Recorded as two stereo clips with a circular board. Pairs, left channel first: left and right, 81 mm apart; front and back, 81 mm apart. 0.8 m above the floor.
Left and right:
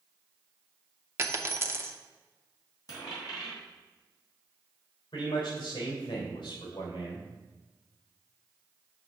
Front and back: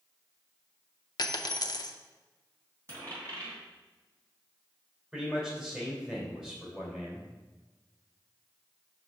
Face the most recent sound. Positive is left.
turn(degrees=100)